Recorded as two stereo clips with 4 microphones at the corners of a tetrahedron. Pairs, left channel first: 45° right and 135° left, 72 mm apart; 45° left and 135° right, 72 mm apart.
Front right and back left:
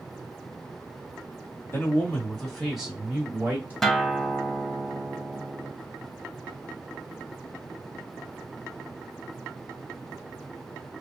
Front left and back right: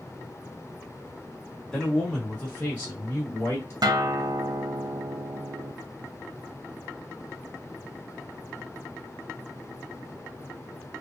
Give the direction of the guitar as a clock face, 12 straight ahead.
4 o'clock.